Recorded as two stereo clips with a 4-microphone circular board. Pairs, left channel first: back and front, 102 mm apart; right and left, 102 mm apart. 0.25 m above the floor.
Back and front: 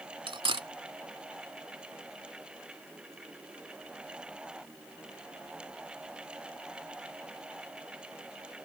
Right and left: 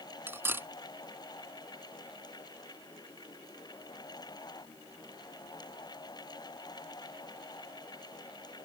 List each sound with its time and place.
0.3 s cutlery clinking: 25° left